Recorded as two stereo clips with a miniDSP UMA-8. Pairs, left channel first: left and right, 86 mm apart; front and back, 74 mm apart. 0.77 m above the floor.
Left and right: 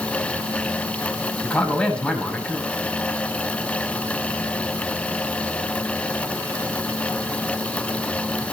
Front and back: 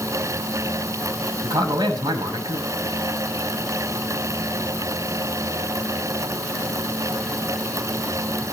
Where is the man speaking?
170° left, 7 m.